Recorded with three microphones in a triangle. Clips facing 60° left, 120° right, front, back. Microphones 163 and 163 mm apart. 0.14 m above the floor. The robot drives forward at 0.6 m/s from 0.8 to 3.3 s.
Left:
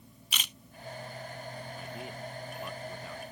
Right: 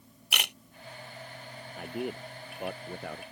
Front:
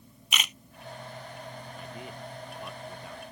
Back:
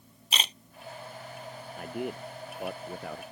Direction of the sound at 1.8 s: 150° right.